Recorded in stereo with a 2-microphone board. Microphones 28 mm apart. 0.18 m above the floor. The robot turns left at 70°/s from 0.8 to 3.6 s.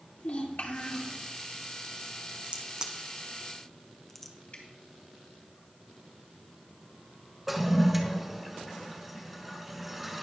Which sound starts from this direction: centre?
A toilet flushing, at 7.5 s.